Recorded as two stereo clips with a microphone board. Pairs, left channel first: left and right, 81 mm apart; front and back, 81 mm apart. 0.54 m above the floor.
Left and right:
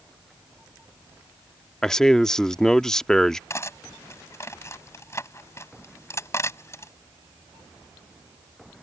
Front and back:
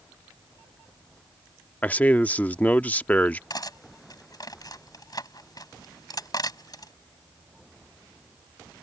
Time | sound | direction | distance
1.8 | a man speaking | 20° left | ?
3.5 | cutlery clinking | 35° left | ?